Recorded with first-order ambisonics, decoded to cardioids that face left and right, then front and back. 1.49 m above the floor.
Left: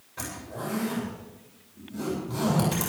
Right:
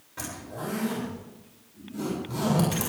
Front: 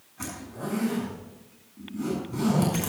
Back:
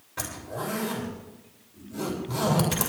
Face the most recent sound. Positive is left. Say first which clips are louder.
# even, back 4 dB
turn(degrees=-170)